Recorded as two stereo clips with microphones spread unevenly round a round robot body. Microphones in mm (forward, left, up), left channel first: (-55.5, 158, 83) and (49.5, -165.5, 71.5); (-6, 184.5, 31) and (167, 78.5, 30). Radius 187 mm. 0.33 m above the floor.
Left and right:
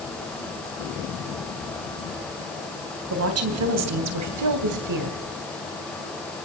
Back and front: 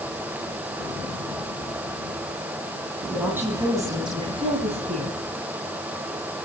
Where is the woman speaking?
115° right, 2.5 m; by 5.2 s 85° right, 2 m.